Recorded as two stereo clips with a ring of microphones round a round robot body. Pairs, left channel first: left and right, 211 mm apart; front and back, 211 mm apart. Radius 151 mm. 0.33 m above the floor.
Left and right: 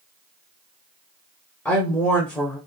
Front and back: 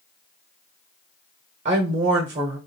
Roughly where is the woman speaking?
Behind.